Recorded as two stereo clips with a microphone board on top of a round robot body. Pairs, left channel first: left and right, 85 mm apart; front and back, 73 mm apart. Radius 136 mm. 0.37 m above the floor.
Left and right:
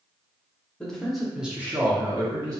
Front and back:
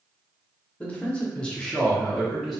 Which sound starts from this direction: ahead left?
A man speaking, at 0.8 s.